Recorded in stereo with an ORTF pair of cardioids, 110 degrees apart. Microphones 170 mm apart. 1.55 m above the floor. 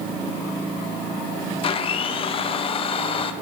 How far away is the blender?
About 1.6 m.